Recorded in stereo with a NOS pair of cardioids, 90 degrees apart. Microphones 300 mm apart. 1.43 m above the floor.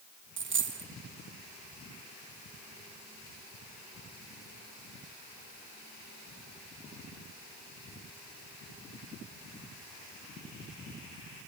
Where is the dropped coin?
40° right, 2 m.